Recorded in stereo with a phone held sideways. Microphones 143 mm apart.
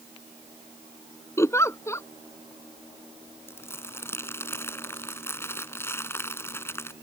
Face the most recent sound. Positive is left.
turn(degrees=15)  # may be behind; listen again after turning